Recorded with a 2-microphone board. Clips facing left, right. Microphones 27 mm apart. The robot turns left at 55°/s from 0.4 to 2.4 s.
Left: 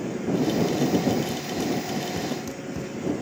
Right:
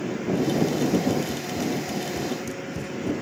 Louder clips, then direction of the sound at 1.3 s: Even; 35° right (ahead or behind).